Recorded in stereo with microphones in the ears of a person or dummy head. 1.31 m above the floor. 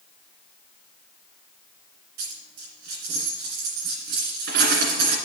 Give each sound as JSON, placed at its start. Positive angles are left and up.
{"t": 2.2, "sound": "a dropped coin", "side_deg": -55, "distance_m": 2.0}